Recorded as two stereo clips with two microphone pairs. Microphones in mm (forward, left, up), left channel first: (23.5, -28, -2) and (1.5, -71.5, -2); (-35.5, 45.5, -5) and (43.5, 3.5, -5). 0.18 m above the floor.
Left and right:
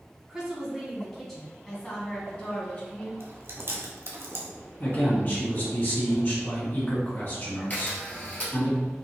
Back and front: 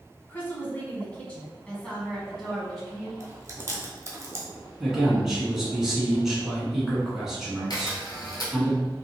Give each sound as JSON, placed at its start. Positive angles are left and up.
{"t": 0.3, "sound": "a woman speaking", "azimuth_deg": -175, "distance_m": 1.4}
{"t": 3.2, "sound": "chewing", "azimuth_deg": -90, "distance_m": 1.1}
{"t": 4.8, "sound": "a man speaking", "azimuth_deg": 55, "distance_m": 1.7}
{"t": 7.7, "sound": "a camera shutter", "azimuth_deg": 115, "distance_m": 1.3}